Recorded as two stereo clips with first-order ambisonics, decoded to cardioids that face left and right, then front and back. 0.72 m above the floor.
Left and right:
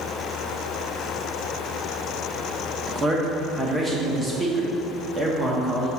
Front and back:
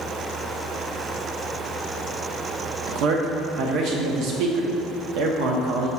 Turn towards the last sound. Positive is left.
turn(degrees=-160)